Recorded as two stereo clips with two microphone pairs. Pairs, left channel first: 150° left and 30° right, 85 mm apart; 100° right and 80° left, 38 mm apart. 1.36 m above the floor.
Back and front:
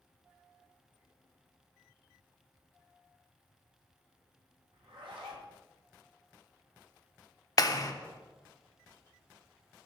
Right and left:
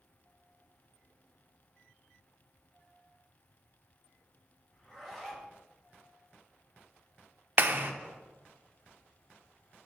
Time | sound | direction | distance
4.7 | a zipper | 20° right | 1.5 m
7.6 | a clap | 105° left | 0.6 m